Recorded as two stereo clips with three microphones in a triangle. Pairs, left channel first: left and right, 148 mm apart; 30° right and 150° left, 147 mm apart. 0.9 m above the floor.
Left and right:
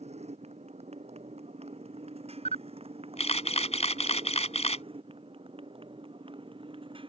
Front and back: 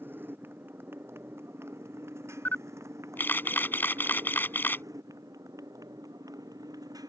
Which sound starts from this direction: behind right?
A motorcycle, at 0.0 s.